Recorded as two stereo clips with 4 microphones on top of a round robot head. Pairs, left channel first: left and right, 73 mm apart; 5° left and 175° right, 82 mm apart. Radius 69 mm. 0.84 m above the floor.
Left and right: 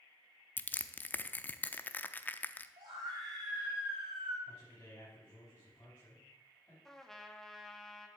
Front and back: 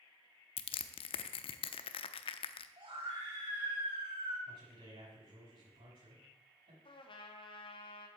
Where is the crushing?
25° left, 0.7 m.